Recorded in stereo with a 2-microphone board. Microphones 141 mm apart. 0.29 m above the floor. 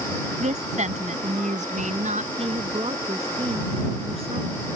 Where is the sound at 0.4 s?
60° right (ahead or behind).